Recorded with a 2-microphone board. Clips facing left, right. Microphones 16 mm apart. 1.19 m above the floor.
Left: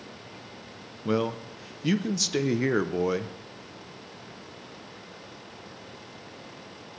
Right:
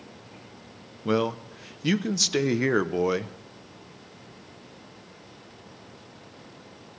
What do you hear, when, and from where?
1.1 s a man speaking: 20° right (ahead or behind), 0.6 m